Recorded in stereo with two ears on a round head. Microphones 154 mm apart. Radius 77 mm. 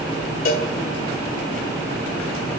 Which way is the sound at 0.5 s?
55° left (ahead or behind).